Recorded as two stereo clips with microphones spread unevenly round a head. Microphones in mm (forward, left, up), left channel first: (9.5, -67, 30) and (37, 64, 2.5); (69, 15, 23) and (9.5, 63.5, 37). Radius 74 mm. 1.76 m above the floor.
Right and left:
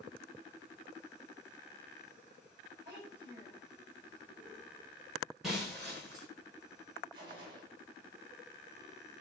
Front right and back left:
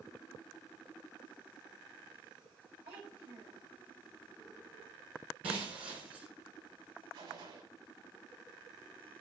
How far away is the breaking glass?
About 5 m.